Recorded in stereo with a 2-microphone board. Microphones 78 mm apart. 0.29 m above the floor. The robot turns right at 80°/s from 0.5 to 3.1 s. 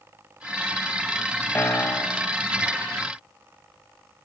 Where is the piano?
25° left (ahead or behind), 0.6 m; by 2.3 s 15° left (ahead or behind), 0.6 m.